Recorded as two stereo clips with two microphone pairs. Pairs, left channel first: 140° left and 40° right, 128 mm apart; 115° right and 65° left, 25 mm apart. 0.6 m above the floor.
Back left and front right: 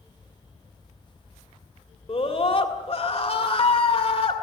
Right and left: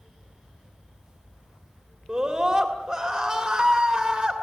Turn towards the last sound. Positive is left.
turn(degrees=120)